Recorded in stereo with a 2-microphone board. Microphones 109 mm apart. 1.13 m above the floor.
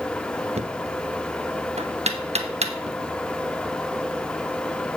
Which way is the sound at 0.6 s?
85° right.